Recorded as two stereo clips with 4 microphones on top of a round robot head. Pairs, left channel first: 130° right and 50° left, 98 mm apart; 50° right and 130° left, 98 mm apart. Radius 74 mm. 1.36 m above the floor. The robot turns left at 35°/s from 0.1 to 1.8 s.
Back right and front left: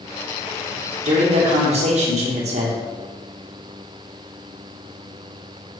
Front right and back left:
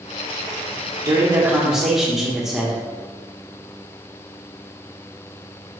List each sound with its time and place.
1.1 s a man speaking: 70° left, 1.2 m; by 2.8 s 40° left, 1.2 m